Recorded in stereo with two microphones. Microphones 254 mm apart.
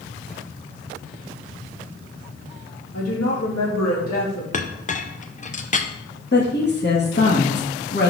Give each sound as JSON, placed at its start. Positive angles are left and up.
{"t": 2.9, "sound": "a woman speaking", "side_deg": 75, "distance_m": 2.5}
{"t": 4.5, "sound": "a clink", "side_deg": 30, "distance_m": 0.5}
{"t": 6.3, "sound": "a woman speaking", "side_deg": 40, "distance_m": 1.7}